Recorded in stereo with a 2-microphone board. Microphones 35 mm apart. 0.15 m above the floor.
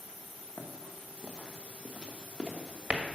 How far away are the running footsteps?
About 1.6 m.